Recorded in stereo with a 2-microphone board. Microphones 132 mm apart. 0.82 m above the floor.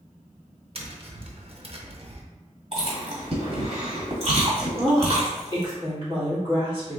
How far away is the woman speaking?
About 2 m.